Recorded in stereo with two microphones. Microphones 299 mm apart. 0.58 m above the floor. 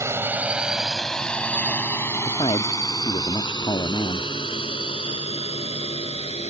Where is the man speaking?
15° left (ahead or behind).